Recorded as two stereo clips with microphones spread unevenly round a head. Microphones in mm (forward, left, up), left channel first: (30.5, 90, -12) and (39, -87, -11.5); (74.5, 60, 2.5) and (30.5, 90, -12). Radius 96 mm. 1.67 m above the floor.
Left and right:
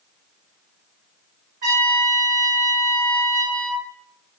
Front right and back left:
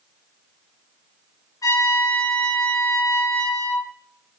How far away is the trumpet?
About 7 m.